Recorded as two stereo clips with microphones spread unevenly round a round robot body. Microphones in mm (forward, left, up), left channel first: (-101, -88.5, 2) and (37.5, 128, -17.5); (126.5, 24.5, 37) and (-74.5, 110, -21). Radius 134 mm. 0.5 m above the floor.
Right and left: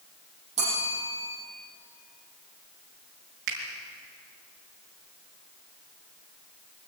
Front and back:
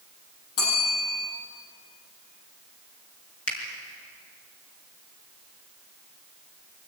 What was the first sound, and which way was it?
A bell, 10° right.